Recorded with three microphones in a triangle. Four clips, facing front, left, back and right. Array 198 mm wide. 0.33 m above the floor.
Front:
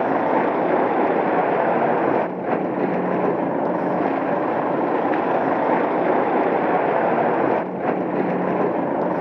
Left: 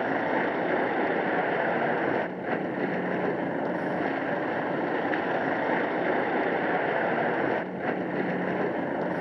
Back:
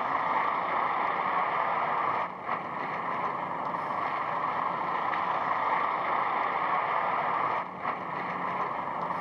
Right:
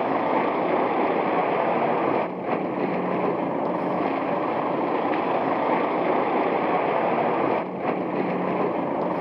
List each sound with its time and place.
0.0 s a vehicle: 15° right